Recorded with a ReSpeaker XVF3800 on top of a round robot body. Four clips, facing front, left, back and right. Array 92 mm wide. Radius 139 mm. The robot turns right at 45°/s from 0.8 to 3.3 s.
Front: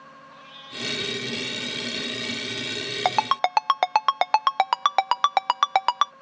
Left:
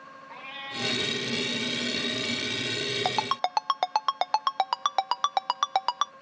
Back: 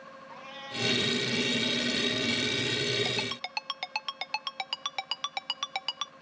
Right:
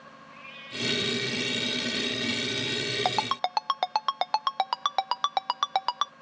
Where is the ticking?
No ticking in this recording.